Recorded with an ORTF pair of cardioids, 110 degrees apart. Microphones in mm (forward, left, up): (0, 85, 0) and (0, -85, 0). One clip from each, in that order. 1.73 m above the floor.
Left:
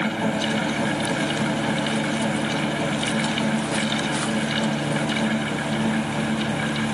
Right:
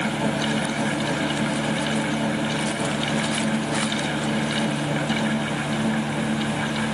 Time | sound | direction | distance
0.0 | a fan | 15° left | ?